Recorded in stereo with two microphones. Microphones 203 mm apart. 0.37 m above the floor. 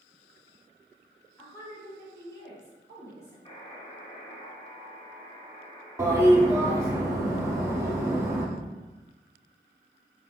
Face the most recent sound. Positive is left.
turn(degrees=-15)  # may be behind; listen again after turning